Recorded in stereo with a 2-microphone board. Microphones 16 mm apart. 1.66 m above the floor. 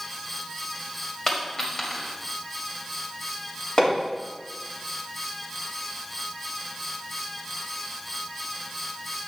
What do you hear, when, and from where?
1.3 s a dropped coin: 30° left (ahead or behind), 1.7 m
3.8 s hammering: 65° left (ahead or behind), 3 m